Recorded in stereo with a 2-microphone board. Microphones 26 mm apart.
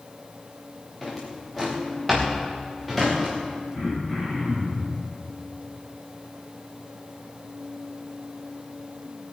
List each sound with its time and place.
1.0 s a drawer: 5° left (ahead or behind), 4 m
3.7 s throat clearing: 15° left (ahead or behind), 7 m